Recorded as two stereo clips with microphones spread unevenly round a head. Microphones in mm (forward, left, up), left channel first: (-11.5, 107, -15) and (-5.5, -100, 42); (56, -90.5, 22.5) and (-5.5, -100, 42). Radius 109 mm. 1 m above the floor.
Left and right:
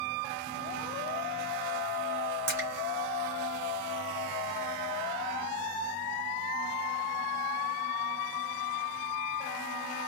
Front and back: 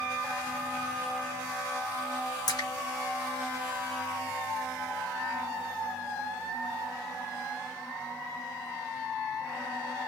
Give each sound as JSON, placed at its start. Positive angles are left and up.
{"t": 2.5, "sound": "a splash", "azimuth_deg": -15, "distance_m": 1.9}